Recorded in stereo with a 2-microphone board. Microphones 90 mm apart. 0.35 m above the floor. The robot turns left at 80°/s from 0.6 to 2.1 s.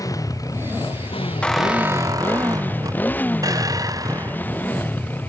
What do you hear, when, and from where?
0.0 s a motorcycle: 140° left; by 5.3 s 20° left
1.4 s a squeak: 15° left; by 4.7 s 40° right